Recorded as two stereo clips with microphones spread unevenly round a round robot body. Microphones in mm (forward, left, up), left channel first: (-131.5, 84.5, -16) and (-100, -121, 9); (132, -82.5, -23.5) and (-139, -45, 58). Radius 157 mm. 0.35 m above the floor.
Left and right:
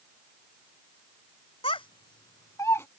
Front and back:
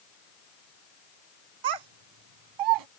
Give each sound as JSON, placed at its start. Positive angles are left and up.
{"t": 1.6, "sound": "a child speaking", "azimuth_deg": 160}